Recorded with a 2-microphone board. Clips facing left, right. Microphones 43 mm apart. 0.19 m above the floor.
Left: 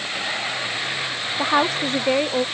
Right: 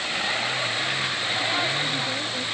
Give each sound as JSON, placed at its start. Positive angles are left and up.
{"t": 1.4, "sound": "a woman speaking", "side_deg": 75}